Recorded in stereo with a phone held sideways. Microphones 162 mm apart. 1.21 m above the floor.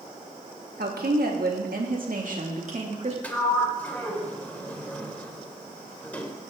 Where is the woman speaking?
85° right, 1.9 m; by 3.1 s 45° right (ahead or behind), 2 m.